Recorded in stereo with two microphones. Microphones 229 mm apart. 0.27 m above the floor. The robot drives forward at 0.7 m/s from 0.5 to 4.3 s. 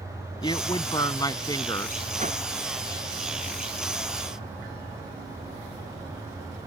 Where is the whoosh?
35° right (ahead or behind).